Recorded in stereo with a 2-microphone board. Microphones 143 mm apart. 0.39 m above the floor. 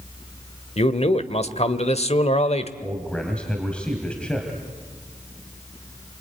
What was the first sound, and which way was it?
A man speaking, 50° left (ahead or behind).